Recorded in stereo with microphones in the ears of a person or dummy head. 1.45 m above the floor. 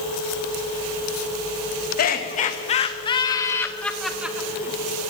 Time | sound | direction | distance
2.0 | laughter | 50° left (ahead or behind) | 1.8 m